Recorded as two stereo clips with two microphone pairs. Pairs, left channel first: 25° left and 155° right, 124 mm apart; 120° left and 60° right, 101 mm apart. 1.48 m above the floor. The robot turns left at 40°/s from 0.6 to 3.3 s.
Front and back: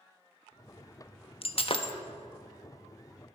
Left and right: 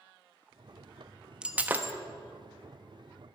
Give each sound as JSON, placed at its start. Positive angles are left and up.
{"t": 1.4, "sound": "breaking glass", "azimuth_deg": 20, "distance_m": 1.0}